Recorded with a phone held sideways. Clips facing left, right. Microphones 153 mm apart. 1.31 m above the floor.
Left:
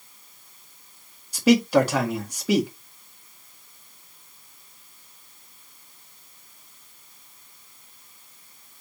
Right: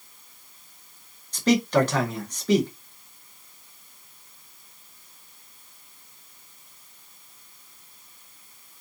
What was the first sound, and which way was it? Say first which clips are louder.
A man speaking: left 3 dB; 10° left (ahead or behind).